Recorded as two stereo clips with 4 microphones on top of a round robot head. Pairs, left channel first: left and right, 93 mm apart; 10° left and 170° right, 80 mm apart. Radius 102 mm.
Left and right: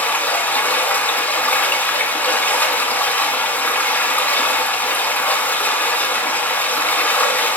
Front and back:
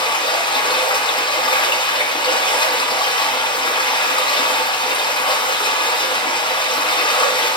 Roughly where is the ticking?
I don't hear ticking.